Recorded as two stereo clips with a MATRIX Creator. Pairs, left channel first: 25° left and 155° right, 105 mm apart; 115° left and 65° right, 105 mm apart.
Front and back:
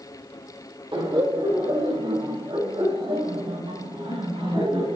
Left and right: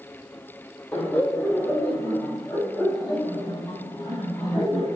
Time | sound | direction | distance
0.9 | laughter | 175° right | 2.5 m